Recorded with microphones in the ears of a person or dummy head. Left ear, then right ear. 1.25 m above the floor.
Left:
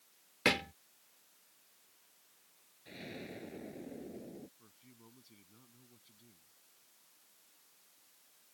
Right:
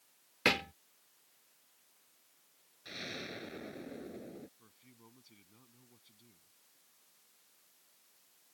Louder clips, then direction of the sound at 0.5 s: Right 1 dB; 20° right (ahead or behind).